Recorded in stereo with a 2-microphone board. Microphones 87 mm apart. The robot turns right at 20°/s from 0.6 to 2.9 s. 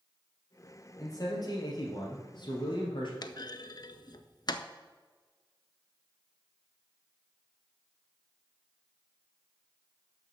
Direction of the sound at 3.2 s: 55° left (ahead or behind).